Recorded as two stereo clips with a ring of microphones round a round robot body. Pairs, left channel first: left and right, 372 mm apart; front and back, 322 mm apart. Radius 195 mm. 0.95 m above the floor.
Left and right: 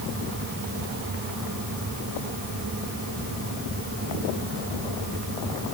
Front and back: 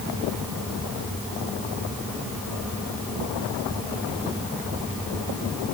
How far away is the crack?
No crack in this recording.